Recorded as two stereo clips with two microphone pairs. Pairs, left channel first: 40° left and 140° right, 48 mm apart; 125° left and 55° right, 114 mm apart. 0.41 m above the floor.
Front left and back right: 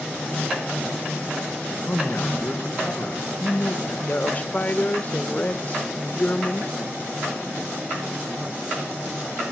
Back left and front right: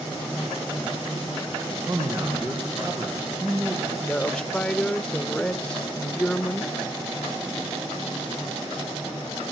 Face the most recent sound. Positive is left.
turn(degrees=45)